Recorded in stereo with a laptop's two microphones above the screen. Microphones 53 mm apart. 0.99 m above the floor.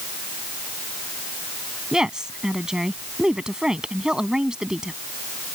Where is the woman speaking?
10° right (ahead or behind).